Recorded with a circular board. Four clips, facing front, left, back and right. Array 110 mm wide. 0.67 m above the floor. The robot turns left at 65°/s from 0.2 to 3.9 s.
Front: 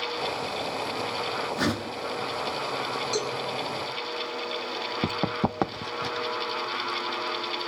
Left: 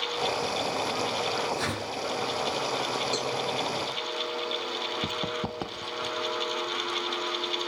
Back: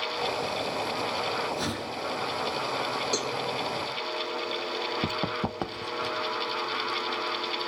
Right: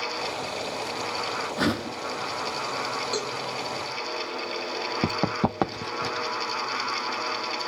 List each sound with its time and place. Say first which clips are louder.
1.6 s a whoosh: right 5 dB, front 4 dB; 60° right, 4 m; by 2.0 s 85° right, 4 m
3.1 s a cowbell: even, front 2 dB; straight behind, 6.5 m; by 3.3 s 165° left, 6.5 m
5.0 s running footsteps: right 6 dB, front 3 dB; 70° right, 0.8 m; by 6.3 s 50° right, 1.2 m